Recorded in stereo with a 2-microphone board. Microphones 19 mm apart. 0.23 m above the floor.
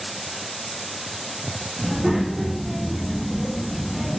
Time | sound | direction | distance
1.8 | a child speaking | 20° right (ahead or behind) | 1.7 m